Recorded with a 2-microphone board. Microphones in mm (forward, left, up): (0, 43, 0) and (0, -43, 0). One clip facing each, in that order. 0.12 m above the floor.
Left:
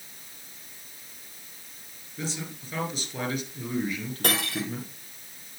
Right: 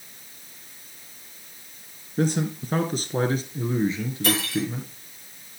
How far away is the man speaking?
About 2 m.